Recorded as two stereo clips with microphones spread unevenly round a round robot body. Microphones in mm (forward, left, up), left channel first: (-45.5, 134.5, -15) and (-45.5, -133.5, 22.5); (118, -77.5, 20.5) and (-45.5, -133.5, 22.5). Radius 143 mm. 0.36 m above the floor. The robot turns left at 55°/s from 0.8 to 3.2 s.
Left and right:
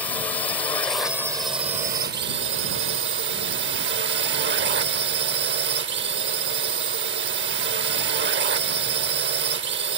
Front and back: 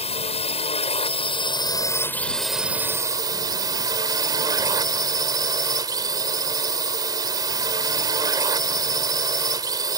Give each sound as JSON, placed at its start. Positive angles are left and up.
{"t": 0.0, "sound": "a drone", "azimuth_deg": 20}